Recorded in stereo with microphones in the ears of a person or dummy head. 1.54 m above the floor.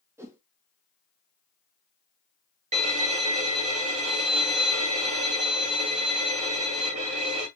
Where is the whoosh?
15° right (ahead or behind), 0.6 m.